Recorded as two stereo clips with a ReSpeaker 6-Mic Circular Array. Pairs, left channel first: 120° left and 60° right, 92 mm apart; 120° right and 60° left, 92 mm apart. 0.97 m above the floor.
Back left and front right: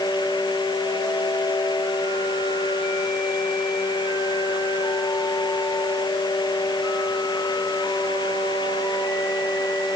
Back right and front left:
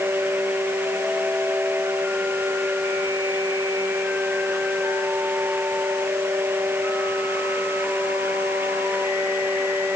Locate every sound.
Only background noise.